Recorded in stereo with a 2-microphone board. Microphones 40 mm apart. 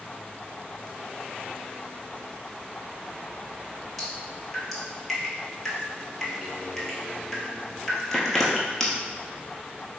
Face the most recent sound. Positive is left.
turn(degrees=5)  # may be behind; listen again after turning